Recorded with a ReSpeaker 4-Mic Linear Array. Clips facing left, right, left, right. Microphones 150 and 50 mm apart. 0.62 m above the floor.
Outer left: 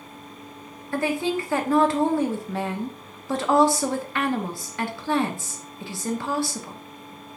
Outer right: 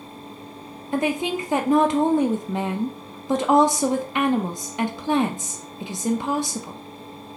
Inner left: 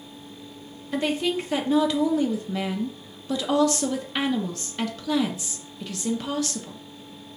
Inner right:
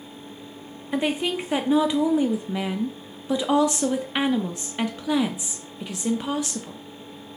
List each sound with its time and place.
0.9 s a woman speaking: 20° right (ahead or behind), 0.5 m